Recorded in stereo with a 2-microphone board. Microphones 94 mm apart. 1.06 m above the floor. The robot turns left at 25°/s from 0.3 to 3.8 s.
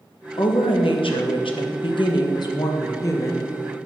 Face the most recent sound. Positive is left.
turn(degrees=20)